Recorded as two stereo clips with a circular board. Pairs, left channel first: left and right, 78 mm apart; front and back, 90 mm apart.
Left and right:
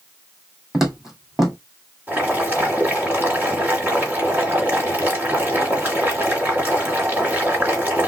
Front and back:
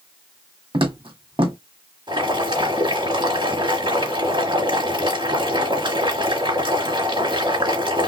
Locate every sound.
0.7 s footsteps: 175° right, 1.9 m
2.1 s boiling: 160° right, 2.5 m